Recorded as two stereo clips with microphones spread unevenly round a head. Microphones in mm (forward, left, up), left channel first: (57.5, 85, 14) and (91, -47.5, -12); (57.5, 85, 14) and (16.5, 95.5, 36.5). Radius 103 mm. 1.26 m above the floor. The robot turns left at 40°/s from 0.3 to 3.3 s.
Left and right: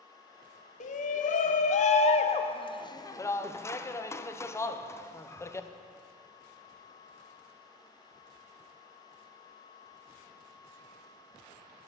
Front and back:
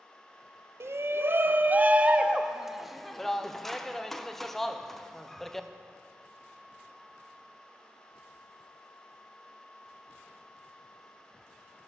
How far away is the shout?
About 0.7 m.